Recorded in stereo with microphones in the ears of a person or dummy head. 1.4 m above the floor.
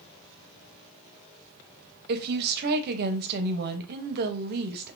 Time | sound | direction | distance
2.1 | a woman speaking | 50° right (ahead or behind) | 0.6 m